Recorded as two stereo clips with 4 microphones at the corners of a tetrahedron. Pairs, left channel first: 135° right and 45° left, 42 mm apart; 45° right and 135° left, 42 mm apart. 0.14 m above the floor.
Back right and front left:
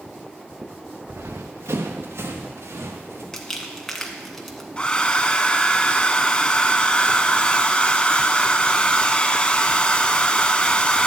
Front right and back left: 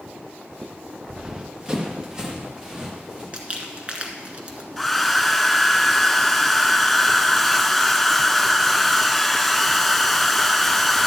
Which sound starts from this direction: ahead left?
Running footsteps, at 1.1 s.